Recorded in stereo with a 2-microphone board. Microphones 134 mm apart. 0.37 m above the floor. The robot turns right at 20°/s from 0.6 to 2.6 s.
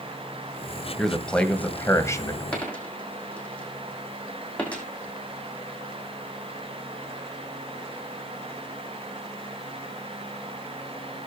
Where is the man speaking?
Centre (ahead or behind), 1.6 m; by 2.4 s 25° left (ahead or behind), 1.6 m.